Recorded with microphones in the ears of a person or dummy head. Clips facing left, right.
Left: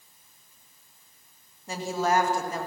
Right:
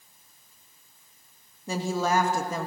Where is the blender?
I don't hear a blender.